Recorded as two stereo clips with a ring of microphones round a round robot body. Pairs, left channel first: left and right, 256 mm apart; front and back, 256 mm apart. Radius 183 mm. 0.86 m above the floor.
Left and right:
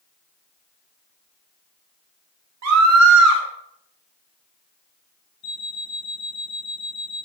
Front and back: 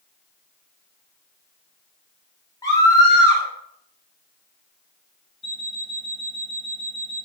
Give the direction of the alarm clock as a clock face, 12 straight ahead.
11 o'clock.